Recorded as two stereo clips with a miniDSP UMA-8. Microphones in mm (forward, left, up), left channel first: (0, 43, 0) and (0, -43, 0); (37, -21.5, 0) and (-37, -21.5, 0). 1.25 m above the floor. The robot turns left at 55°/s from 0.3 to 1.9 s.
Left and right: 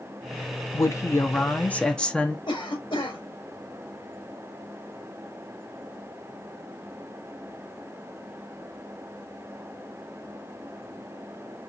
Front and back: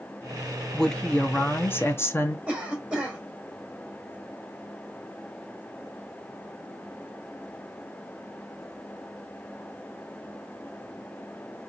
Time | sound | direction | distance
0.7 | a woman speaking | 80° left | 0.6 m
2.5 | a cough | 105° left | 1.3 m